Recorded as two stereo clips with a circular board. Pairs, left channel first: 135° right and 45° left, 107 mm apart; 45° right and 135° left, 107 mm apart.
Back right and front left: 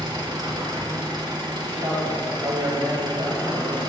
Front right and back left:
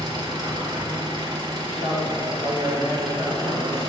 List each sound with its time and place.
0.0 s an engine running: 90° left, 1.6 m
1.6 s a man speaking: 75° left, 4 m